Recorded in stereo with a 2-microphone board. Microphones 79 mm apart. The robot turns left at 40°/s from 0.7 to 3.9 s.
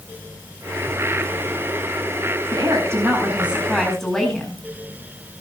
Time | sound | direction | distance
2.5 | a woman speaking | 130° right | 10 m